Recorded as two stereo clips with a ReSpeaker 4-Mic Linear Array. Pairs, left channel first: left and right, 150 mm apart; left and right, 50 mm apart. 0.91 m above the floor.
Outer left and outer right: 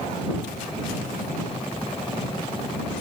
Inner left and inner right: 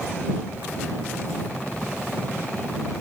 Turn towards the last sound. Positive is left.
No sound to turn to.